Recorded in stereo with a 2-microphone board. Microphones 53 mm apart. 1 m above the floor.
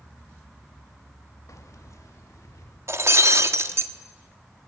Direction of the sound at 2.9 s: 55° right (ahead or behind).